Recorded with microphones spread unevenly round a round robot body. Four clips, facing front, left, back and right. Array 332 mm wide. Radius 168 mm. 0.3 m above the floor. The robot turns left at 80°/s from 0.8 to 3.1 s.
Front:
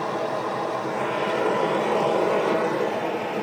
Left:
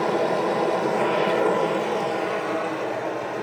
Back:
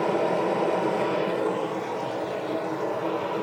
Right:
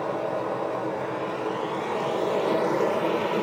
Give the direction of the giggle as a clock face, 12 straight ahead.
No giggle in this recording.